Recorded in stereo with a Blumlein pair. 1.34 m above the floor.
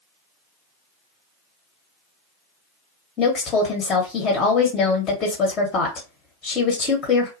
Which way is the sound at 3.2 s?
25° left.